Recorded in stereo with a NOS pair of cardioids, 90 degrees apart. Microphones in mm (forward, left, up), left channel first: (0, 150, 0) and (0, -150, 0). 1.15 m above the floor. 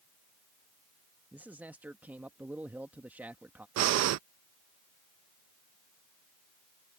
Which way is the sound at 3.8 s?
60° right.